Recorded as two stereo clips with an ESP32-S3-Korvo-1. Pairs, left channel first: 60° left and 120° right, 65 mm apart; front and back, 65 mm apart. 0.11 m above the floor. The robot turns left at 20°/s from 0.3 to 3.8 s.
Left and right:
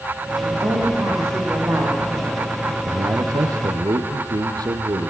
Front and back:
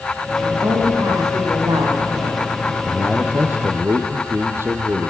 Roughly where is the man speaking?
Right.